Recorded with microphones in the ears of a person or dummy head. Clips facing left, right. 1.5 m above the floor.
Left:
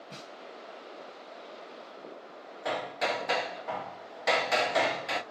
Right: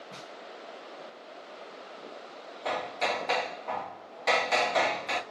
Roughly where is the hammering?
Centre.